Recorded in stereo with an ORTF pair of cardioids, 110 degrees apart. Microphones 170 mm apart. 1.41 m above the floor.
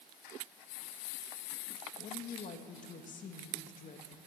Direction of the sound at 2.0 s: 50° left.